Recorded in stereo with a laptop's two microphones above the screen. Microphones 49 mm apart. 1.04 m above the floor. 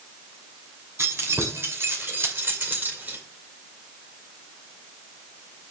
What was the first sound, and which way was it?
Keys jangling, 60° right (ahead or behind).